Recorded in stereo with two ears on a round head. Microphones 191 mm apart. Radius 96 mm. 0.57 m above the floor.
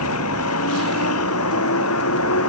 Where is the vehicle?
80° left; by 2.5 s 75° left (ahead or behind).